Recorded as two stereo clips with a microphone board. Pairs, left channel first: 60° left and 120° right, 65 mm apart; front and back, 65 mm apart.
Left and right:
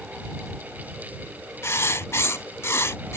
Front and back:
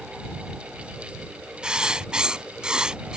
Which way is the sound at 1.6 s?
105° left.